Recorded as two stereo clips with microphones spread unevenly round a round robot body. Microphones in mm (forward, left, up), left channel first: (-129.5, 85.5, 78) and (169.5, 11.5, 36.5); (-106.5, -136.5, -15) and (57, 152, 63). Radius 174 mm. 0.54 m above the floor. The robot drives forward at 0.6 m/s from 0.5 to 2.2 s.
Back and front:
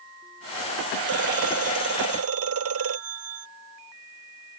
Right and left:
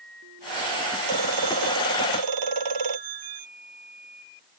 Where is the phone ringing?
30° left.